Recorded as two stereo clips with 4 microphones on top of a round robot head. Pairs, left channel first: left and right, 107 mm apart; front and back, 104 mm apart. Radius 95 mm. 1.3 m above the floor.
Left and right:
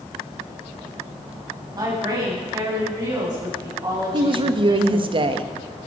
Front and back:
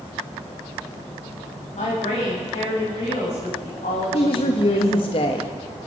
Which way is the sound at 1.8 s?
40° right.